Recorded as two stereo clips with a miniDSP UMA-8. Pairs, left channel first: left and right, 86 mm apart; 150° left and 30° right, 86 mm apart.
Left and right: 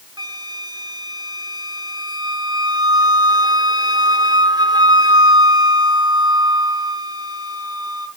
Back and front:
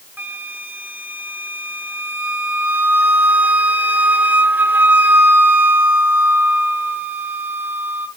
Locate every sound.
0.2 s a flute: 95° right, 1.0 m